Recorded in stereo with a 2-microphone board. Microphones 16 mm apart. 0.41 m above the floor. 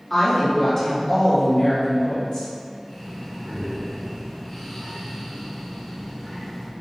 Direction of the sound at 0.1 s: 20° left (ahead or behind).